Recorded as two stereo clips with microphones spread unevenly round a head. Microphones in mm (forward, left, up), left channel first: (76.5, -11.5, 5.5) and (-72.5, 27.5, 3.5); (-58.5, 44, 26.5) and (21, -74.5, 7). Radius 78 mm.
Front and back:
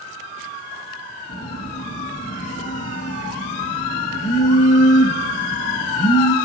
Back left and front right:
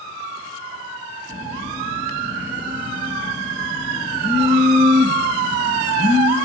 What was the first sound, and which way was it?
A phone buzzing, 25° left.